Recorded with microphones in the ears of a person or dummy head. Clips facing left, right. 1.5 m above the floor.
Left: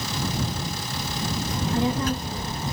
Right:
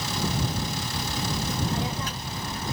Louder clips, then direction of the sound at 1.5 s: Left 5 dB; 50° left (ahead or behind).